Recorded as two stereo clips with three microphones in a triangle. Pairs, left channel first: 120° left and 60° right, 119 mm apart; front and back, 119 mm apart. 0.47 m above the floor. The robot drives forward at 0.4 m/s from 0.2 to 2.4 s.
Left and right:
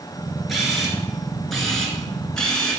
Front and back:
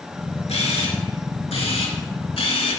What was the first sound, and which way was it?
A camera shutter, 30° left.